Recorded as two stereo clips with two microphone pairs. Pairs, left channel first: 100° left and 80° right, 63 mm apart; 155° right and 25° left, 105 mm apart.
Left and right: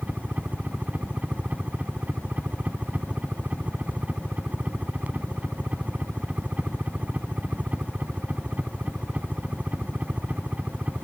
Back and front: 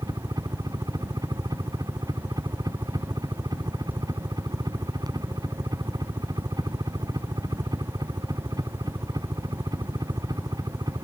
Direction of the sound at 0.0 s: 20° right.